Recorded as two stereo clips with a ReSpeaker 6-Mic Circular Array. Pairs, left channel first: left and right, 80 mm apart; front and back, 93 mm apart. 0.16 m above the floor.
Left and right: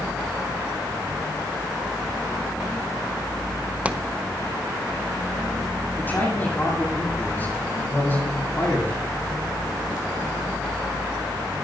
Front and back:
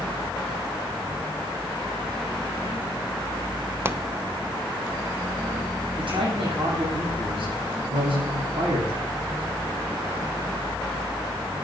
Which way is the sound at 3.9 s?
145° right.